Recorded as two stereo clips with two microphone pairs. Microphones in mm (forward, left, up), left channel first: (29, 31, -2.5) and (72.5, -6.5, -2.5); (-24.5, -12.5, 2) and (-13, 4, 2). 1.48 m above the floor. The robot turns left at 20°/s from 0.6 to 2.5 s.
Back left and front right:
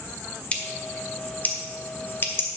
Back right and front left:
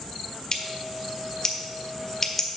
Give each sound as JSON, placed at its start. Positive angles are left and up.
{"t": 0.5, "sound": "scissors", "azimuth_deg": -160, "distance_m": 1.5}